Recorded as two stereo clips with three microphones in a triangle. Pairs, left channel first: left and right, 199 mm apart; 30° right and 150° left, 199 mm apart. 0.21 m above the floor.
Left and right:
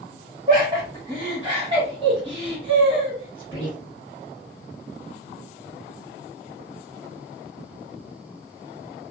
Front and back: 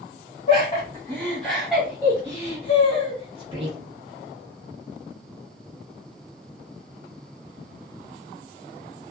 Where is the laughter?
50° right, 1.1 m; by 3.8 s 155° right, 2 m.